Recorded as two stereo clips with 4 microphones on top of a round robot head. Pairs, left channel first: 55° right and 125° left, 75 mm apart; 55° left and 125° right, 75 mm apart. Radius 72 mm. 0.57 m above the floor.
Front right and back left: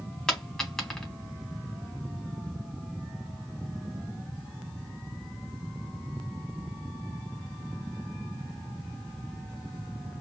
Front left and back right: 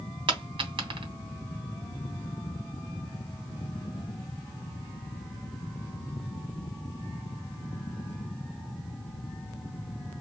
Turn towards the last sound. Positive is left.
turn(degrees=-135)